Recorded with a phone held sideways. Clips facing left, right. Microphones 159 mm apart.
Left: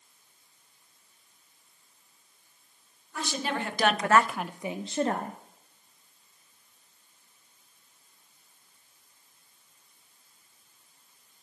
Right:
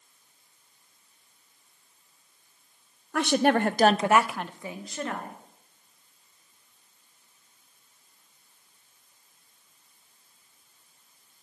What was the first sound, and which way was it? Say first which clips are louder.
A woman speaking: right 10 dB; 70° right (ahead or behind).